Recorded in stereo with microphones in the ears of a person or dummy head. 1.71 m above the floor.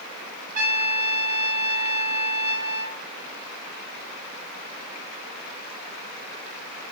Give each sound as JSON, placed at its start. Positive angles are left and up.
{"t": 0.6, "sound": "a trumpet", "side_deg": -45, "distance_m": 1.4}